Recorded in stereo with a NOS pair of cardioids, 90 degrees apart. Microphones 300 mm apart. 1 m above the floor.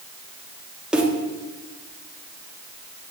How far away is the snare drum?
About 1.3 m.